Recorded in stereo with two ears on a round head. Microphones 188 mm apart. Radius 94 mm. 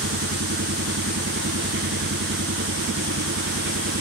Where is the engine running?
55° right (ahead or behind).